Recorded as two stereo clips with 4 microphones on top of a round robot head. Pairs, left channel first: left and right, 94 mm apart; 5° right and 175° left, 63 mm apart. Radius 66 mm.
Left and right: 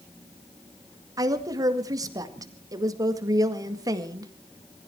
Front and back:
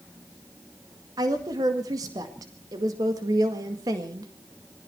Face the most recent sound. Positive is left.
turn(degrees=-140)